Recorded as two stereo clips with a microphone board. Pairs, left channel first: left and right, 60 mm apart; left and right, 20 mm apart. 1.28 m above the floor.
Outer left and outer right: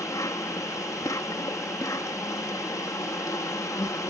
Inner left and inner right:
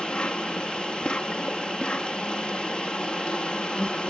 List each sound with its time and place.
0.0 s an insect: 70° left (ahead or behind)